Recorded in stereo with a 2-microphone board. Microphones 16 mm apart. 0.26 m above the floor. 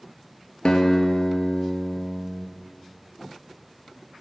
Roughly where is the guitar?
Left.